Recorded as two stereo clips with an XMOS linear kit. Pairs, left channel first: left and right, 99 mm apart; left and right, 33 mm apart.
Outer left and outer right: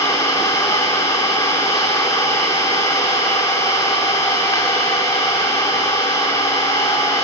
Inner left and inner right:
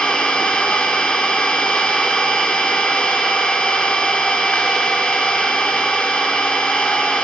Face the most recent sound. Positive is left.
turn(degrees=40)  # may be behind; listen again after turning